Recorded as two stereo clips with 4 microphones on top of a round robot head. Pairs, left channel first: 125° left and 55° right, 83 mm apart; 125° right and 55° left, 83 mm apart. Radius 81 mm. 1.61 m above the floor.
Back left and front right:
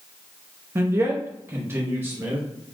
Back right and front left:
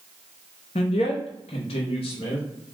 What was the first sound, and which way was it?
A man speaking, 120° right.